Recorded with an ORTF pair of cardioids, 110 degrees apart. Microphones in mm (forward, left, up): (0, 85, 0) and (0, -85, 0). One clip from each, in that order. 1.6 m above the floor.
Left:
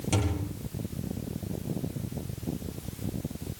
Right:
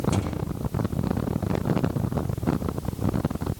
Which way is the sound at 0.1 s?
40° left.